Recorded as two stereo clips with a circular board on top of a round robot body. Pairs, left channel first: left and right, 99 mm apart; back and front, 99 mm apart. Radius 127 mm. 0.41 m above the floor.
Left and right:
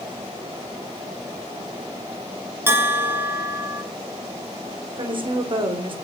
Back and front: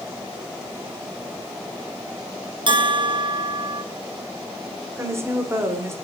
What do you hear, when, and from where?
2.7 s a bell: 25° right, 1.7 m
5.0 s a woman speaking: 60° right, 2 m